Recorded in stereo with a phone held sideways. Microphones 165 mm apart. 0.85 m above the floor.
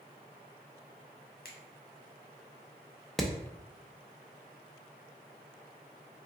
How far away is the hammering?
About 0.5 m.